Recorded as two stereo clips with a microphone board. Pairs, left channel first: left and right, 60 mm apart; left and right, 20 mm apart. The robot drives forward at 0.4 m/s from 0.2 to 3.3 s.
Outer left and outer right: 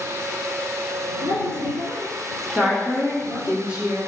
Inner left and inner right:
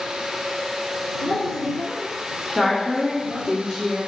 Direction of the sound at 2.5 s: 20° right (ahead or behind).